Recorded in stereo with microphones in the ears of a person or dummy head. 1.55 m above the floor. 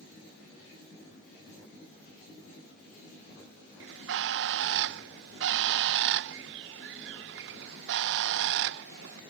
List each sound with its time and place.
3.8 s a bird: 65° right (ahead or behind)